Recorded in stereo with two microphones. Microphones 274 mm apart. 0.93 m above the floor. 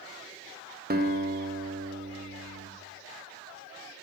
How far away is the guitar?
About 0.5 m.